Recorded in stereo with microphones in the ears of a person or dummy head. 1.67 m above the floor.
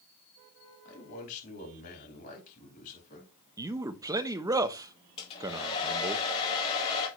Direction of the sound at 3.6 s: 20° right (ahead or behind).